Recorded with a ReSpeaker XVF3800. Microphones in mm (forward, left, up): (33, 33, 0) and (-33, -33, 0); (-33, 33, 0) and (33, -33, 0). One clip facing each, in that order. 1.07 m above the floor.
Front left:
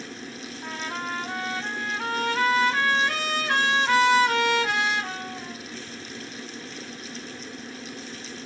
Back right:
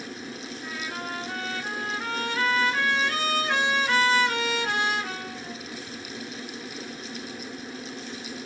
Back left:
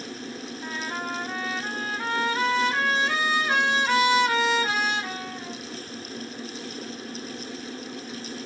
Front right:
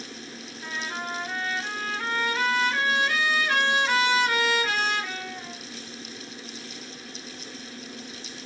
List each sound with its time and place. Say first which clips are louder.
0.6 s a trumpet: front left 3 dB, back left 1 dB; 65° left, 1.6 m